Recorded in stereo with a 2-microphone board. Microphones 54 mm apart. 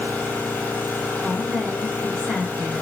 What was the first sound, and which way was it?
An engine running, 40° left (ahead or behind).